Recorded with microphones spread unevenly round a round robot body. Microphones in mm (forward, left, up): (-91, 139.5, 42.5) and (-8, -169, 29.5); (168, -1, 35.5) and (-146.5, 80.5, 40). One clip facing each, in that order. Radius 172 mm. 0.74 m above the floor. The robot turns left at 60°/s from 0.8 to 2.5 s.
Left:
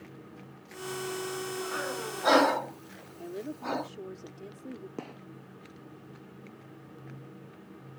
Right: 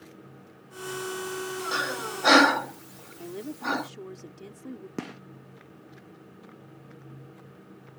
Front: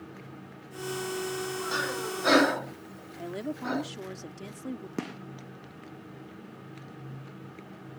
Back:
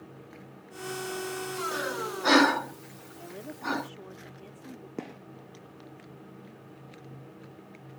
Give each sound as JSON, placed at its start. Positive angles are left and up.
{"t": 1.7, "sound": "breathing", "azimuth_deg": -80}
{"t": 3.2, "sound": "a woman speaking", "azimuth_deg": 0}
{"t": 5.0, "sound": "a gunshot", "azimuth_deg": -55}